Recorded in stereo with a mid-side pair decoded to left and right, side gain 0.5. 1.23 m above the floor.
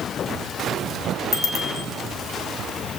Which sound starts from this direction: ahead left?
A bicycle bell, at 1.3 s.